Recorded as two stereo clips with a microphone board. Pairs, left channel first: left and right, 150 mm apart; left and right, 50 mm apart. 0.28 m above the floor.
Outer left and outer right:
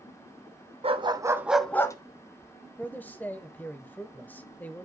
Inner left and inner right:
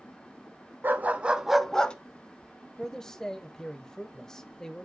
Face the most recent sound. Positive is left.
turn(degrees=10)  # may be behind; listen again after turning